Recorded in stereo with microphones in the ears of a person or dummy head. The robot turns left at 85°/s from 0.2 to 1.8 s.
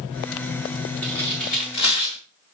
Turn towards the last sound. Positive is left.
turn(degrees=55)  # may be behind; listen again after turning